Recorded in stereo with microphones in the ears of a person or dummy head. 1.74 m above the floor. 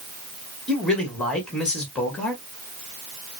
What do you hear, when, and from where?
0.7 s a man speaking: 5° left (ahead or behind), 1.9 m